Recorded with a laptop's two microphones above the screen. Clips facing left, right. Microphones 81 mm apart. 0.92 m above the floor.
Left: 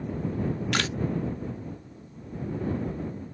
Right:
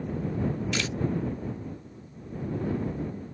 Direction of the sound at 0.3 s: 65° left (ahead or behind).